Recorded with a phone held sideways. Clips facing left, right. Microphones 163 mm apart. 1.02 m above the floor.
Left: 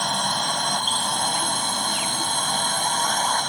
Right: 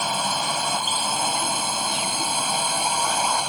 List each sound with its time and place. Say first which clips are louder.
0.0 s a drone: right 1 dB; 5° right (ahead or behind); by 3.5 s 10° right (ahead or behind)